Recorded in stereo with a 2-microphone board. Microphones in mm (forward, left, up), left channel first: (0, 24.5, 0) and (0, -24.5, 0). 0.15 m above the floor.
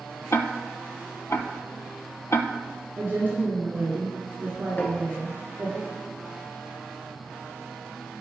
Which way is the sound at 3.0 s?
40° right (ahead or behind).